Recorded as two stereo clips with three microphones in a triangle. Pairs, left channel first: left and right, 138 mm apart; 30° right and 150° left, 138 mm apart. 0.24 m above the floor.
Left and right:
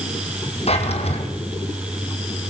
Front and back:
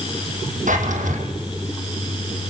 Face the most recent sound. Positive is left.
turn(degrees=130)